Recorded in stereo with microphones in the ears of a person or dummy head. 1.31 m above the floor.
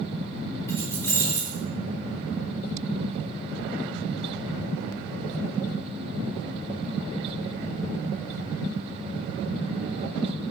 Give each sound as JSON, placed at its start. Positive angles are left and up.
{"t": 0.7, "sound": "keys jangling", "side_deg": 15, "distance_m": 2.0}